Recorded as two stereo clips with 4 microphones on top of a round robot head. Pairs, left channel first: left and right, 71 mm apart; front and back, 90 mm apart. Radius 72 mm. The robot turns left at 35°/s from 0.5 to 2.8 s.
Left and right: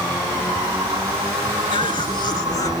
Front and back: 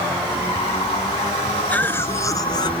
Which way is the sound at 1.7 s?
75° left.